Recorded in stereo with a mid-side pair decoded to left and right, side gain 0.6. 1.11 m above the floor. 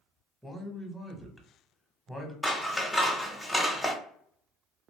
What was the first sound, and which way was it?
A man speaking, straight ahead.